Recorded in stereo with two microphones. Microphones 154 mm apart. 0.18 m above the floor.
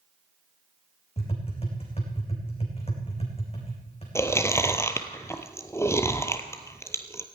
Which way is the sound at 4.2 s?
15° left (ahead or behind).